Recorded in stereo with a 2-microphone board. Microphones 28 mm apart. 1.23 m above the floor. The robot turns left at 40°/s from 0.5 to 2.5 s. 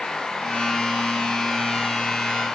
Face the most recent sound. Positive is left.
No sound to turn to.